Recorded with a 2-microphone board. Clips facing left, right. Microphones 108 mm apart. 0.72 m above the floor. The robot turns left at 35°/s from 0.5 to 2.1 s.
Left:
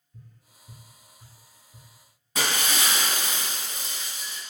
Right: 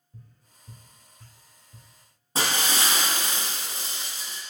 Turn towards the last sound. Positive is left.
turn(degrees=-30)  # may be behind; listen again after turning